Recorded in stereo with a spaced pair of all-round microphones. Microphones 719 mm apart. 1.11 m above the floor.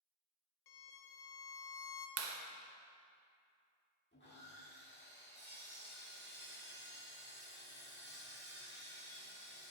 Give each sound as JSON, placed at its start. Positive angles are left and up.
{"t": 0.7, "sound": "a violin", "side_deg": 80, "distance_m": 0.7}
{"t": 2.2, "sound": "a clap", "side_deg": -80, "distance_m": 0.8}
{"t": 4.1, "sound": "sawing", "side_deg": 15, "distance_m": 1.6}